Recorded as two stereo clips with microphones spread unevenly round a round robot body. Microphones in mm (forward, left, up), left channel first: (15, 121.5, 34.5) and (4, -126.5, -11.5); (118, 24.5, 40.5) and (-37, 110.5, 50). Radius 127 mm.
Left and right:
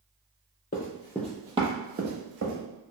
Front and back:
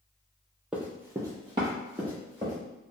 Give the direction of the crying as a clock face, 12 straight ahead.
I don't hear crying.